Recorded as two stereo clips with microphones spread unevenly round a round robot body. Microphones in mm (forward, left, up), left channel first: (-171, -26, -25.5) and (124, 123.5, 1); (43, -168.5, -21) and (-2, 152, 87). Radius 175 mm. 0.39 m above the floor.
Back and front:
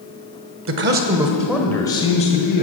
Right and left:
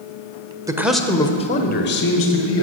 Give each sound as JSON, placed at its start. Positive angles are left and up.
{"t": 0.7, "sound": "a man speaking", "azimuth_deg": 0, "distance_m": 1.2}